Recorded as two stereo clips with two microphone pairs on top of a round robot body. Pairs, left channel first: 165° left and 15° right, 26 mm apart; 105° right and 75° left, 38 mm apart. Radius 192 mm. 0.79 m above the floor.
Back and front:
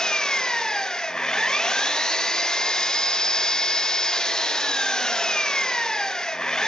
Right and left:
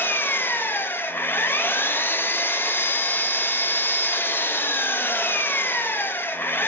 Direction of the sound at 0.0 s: 130° right.